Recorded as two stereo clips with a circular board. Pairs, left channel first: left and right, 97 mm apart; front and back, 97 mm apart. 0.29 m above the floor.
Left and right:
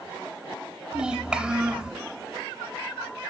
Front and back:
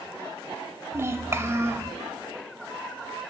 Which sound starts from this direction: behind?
A child speaking, at 0.9 s.